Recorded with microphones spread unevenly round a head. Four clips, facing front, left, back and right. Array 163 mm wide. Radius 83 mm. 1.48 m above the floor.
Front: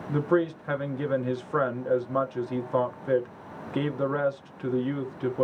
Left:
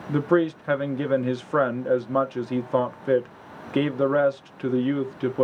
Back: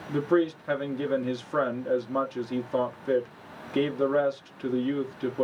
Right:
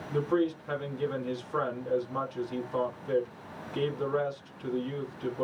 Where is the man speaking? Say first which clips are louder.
Left 6 dB, even; 105° left, 1.1 m.